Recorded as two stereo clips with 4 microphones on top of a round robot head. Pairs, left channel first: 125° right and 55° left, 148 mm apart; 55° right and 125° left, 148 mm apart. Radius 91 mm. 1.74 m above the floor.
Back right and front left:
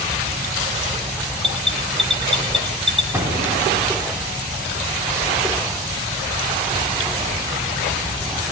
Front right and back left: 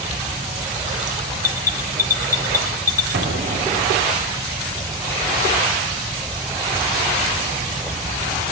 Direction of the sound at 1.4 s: 35° right.